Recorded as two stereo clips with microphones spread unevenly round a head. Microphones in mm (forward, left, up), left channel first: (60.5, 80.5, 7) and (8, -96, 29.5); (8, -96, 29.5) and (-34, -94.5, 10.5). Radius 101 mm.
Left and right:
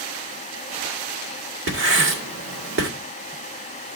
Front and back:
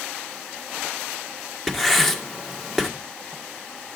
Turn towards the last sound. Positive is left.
turn(degrees=-90)